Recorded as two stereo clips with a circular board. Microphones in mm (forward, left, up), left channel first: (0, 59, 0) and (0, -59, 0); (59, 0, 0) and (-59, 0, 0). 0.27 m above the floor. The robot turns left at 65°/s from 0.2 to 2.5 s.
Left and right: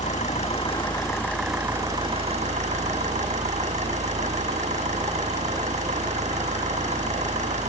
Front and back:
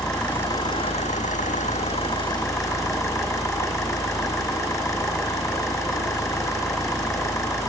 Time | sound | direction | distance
0.0 | an engine running | 85° left | 6 m